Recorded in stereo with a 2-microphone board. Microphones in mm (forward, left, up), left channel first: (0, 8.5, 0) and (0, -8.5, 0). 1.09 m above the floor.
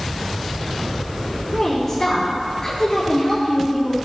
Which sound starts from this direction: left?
A woman speaking, at 1.5 s.